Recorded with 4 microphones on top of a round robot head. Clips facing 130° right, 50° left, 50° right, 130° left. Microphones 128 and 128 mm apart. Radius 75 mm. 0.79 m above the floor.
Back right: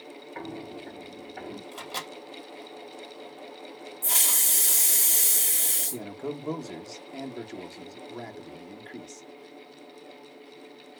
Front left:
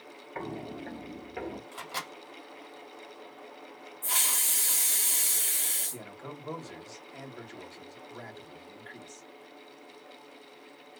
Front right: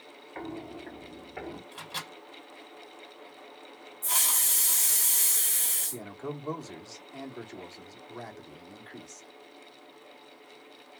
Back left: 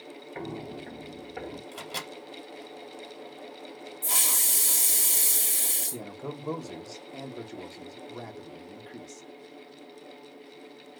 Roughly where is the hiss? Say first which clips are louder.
Front left 1 dB, front right 1 dB; behind.